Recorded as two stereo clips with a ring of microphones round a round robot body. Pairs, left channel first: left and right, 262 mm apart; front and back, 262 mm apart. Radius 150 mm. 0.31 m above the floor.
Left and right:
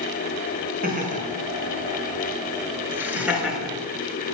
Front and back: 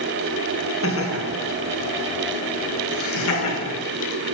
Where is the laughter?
35° right, 5 m; by 3.7 s straight ahead, 6 m.